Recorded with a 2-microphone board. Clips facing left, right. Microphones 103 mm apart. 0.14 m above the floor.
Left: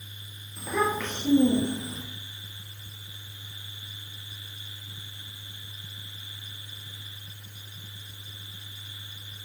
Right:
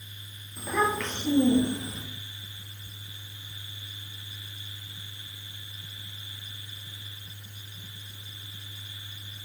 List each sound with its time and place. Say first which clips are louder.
0.6 s a child speaking: even; 5° right (ahead or behind), 2.5 m; by 2.0 s 35° left (ahead or behind), 3 m